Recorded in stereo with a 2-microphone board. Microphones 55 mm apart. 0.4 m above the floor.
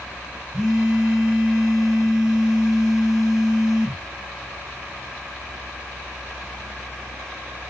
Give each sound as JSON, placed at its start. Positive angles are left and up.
{"t": 0.5, "sound": "a phone buzzing", "side_deg": -15, "distance_m": 0.8}